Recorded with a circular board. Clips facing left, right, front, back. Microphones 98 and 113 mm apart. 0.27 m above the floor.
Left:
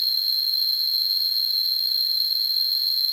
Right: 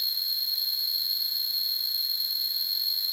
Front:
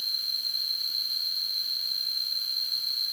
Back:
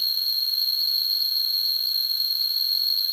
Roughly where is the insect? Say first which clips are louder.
Left 6 dB, back 5 dB; left.